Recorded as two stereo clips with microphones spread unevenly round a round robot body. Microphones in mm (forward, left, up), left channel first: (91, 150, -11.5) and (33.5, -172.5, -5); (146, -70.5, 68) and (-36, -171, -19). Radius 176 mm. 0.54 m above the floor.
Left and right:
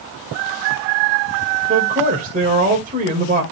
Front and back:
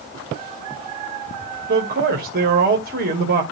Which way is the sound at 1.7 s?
170° right.